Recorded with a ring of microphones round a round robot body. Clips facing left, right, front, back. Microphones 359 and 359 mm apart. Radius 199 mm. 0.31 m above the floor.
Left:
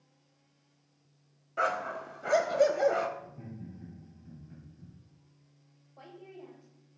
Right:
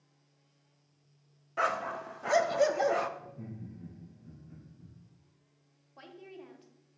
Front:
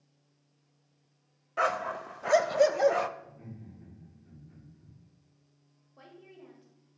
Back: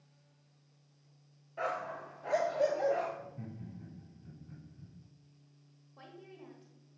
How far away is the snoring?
No snoring in this recording.